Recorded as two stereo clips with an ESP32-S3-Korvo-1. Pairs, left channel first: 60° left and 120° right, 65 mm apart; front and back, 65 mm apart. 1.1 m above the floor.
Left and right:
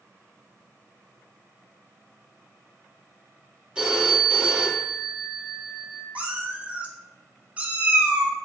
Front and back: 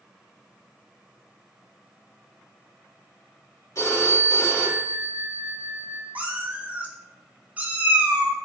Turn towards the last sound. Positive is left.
turn(degrees=-155)